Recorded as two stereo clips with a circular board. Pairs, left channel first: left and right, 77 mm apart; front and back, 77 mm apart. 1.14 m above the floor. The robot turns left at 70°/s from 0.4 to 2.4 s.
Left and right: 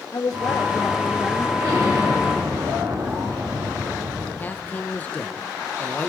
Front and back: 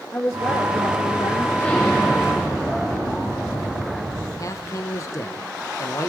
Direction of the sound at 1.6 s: 55° right.